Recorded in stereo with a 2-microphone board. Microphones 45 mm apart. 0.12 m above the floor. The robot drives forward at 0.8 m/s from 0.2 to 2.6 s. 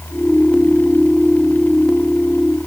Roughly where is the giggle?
I don't hear a giggle.